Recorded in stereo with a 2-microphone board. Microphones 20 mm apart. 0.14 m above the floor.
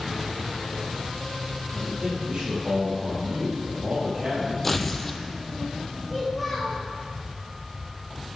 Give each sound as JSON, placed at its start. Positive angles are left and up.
{"t": 1.7, "sound": "a man speaking", "side_deg": -50, "distance_m": 4.5}
{"t": 4.6, "sound": "tearing paper", "side_deg": 5, "distance_m": 0.7}
{"t": 6.1, "sound": "a child speaking", "side_deg": -5, "distance_m": 2.5}